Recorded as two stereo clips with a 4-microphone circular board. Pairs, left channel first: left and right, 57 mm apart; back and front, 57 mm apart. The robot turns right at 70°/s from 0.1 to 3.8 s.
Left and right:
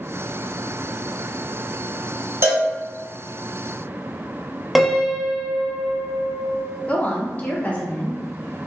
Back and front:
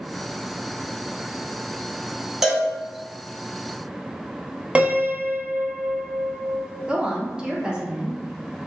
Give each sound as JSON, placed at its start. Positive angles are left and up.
{"t": 2.4, "sound": "a cowbell", "azimuth_deg": -80, "distance_m": 0.6}
{"t": 4.8, "sound": "a piano", "azimuth_deg": -10, "distance_m": 0.5}
{"t": 6.9, "sound": "a woman speaking", "azimuth_deg": 60, "distance_m": 0.6}